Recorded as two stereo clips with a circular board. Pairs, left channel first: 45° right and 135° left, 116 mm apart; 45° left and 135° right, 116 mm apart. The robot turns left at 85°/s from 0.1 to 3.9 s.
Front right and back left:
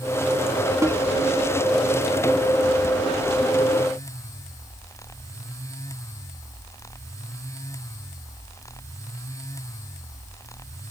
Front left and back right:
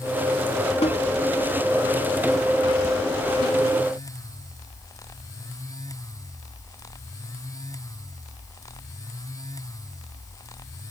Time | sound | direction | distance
0.8 | a snare drum | 70° left | ?